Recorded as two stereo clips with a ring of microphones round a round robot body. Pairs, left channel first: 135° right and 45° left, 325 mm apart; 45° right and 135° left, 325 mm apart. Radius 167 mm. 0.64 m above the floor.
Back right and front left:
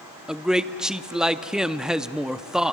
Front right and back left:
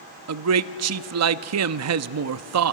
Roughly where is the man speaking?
Behind left.